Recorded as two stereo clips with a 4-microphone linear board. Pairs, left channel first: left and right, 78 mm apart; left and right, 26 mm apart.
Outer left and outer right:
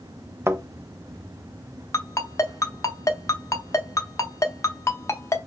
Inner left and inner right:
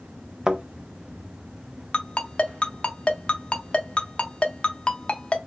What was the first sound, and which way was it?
A thud, 35° right (ahead or behind).